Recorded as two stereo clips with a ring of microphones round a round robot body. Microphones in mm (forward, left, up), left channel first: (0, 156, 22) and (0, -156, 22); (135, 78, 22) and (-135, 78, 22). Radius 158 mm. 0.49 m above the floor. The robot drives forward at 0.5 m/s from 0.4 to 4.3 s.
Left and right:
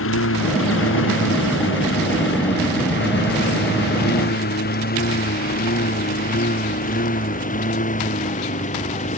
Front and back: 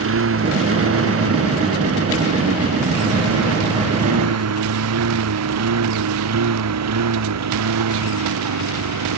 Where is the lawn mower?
140° left; by 9.2 s 160° left.